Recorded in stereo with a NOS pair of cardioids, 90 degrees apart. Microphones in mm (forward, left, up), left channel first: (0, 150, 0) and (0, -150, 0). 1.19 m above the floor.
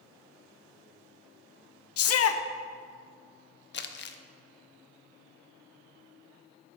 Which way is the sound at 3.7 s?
40° left.